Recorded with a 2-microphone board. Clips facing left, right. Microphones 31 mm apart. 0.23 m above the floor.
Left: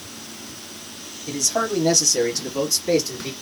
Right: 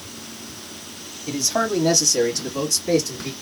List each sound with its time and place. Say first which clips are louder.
1.3 s a man speaking: right 1 dB; 25° right (ahead or behind), 1.0 m; by 3.3 s 15° left (ahead or behind), 1.7 m